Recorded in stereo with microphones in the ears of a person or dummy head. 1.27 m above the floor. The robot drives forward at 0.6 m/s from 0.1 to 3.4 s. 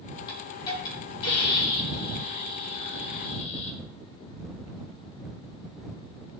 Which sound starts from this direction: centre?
A hiss, at 0.3 s.